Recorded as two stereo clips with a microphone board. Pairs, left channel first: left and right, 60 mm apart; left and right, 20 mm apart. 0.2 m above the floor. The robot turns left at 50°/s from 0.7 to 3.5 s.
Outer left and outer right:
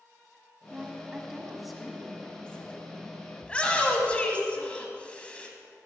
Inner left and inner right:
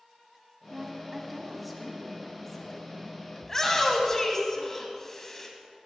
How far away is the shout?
About 1.0 m.